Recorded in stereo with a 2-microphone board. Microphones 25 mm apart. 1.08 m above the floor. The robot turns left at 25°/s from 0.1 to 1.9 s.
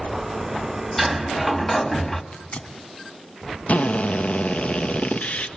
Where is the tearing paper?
65° left (ahead or behind), 2 m.